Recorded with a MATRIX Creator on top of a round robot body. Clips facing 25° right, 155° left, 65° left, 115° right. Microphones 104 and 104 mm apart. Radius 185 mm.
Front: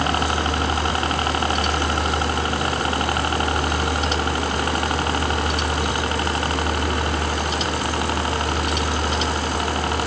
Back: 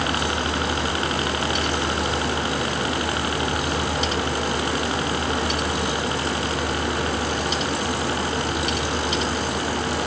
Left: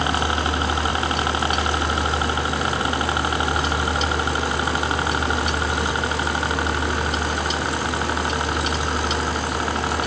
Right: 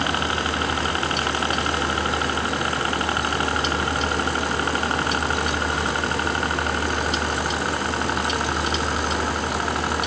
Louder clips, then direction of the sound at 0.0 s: Front 2 dB, left 2 dB; 5° left.